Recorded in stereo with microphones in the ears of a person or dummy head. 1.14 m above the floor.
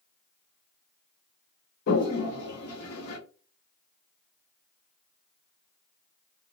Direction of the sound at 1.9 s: 55° left (ahead or behind).